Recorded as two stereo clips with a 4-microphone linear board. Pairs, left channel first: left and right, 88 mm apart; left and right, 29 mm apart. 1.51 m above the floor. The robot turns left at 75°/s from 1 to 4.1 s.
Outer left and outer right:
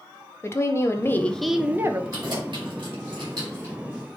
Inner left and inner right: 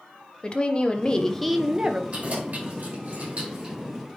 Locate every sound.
0.4 s a woman speaking: 35° left, 0.9 m; by 2.0 s 40° right, 0.9 m
2.1 s keys jangling: 40° right (ahead or behind), 4.5 m; by 3.8 s 15° right (ahead or behind), 4.5 m